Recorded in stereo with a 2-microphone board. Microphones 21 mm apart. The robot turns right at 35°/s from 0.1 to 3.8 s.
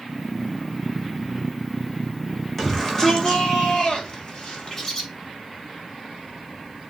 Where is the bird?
25° left (ahead or behind), 4 m.